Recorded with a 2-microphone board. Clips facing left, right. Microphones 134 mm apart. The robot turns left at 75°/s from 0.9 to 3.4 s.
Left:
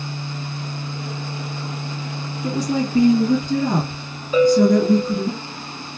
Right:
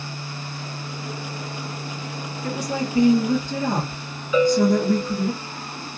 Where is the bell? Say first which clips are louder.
Left 4 dB; 40° left (ahead or behind), 1.7 m.